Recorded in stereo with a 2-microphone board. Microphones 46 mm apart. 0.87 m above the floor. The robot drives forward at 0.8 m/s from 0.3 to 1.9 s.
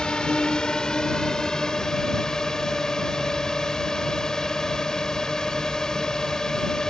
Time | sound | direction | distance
0.0 | a drone | 20° left (ahead or behind) | ?